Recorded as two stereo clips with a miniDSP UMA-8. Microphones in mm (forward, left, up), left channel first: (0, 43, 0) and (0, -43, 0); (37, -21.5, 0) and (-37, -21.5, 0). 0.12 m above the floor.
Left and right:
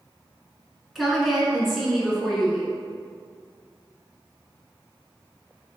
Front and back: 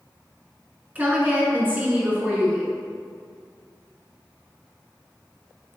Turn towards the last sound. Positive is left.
turn(degrees=-175)